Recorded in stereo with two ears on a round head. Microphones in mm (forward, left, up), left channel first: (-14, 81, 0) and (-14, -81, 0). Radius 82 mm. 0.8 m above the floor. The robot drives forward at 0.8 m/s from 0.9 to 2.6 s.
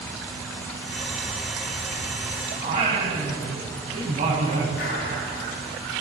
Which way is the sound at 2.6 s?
40° right (ahead or behind).